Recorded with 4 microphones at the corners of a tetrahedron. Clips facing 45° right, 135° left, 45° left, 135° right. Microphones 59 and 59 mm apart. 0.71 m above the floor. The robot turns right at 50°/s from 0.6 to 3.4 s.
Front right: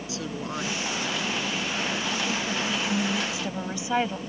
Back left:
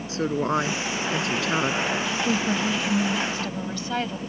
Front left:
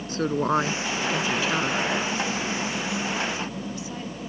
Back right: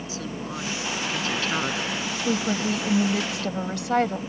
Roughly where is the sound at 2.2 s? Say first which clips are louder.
Back left 4 dB, back right 3 dB; behind.